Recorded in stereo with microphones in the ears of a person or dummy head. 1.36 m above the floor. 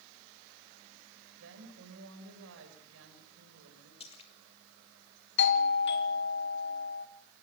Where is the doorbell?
60° left (ahead or behind), 2.5 m.